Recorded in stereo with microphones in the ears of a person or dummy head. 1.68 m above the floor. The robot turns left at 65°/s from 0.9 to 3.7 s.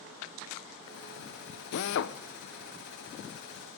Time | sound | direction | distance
1.7 | a drill | 55° left (ahead or behind) | 0.8 m